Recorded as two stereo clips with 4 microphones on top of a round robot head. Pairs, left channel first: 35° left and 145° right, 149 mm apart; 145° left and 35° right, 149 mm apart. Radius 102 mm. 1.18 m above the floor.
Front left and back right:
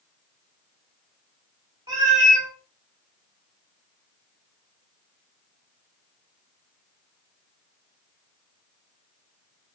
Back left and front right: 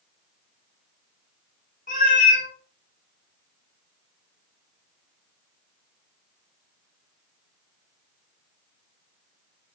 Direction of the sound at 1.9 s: 160° left.